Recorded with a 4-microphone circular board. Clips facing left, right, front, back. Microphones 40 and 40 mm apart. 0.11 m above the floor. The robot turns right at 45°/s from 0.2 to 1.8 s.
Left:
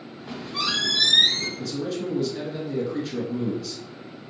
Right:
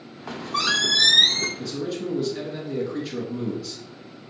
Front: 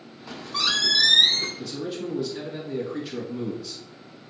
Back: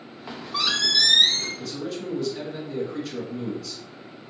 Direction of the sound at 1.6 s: 15° right.